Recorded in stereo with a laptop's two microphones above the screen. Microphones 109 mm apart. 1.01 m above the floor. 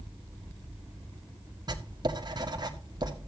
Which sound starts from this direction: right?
Writing, at 1.7 s.